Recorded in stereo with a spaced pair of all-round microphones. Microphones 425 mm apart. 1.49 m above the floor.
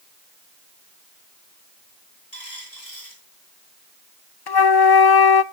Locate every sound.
2.3 s a dropped coin: 75° left (ahead or behind), 9 m
4.5 s a flute: 60° left (ahead or behind), 0.6 m